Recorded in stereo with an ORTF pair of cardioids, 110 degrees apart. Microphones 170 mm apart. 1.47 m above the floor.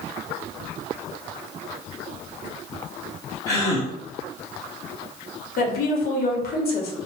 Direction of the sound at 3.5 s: 20° left.